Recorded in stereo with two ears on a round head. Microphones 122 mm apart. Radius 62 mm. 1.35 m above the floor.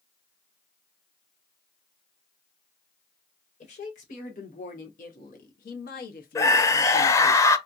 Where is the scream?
25° left (ahead or behind), 0.7 m.